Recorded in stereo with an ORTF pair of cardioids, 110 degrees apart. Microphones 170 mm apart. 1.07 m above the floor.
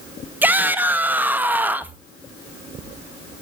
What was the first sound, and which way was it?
A shout, 10° right.